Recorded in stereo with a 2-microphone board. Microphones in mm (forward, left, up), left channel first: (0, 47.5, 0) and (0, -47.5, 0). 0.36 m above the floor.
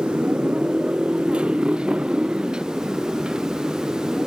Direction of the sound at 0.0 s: 15° right (ahead or behind).